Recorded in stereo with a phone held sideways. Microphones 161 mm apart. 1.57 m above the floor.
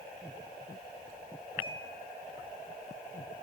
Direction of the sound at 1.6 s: 30° left (ahead or behind).